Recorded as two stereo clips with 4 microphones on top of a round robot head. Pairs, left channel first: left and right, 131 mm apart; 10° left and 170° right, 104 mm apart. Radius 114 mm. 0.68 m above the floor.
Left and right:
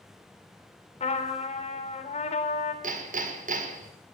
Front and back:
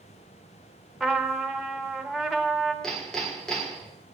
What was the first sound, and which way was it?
A trumpet, 100° left.